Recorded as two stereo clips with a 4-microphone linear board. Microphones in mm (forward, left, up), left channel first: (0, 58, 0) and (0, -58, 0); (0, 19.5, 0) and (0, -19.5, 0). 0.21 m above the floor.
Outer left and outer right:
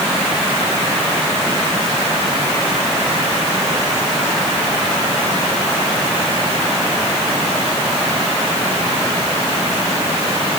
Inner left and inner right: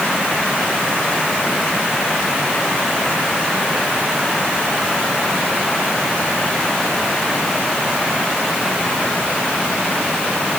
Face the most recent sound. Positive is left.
No sound to turn to.